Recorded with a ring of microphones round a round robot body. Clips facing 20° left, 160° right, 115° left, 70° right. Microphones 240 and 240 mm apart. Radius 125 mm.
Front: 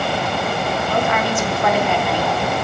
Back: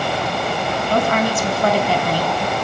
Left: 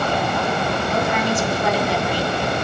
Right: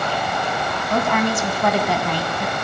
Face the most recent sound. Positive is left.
turn(degrees=-105)